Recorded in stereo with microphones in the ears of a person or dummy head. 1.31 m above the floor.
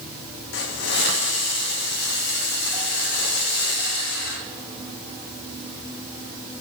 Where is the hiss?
65° left (ahead or behind), 1.4 m.